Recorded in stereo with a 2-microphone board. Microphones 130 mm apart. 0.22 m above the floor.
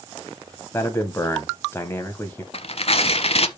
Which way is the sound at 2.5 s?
50° left (ahead or behind).